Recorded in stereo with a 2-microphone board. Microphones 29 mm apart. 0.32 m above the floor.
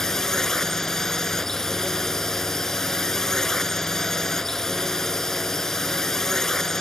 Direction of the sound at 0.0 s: 20° left (ahead or behind).